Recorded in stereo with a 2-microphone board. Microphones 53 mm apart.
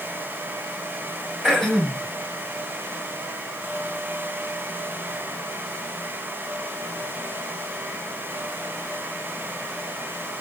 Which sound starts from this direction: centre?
Throat clearing, at 1.4 s.